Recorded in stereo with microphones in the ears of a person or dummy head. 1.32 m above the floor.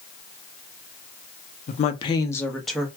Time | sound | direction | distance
1.7 | a woman speaking | 45° left (ahead or behind) | 0.7 m